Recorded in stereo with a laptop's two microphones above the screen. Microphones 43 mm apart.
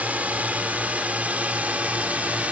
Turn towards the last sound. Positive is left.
turn(degrees=-35)  # may be behind; listen again after turning